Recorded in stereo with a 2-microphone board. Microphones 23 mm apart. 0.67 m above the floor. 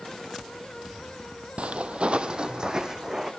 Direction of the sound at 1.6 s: 60° right (ahead or behind).